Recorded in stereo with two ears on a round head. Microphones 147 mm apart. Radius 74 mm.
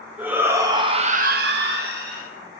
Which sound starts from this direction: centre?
A shout, at 0.2 s.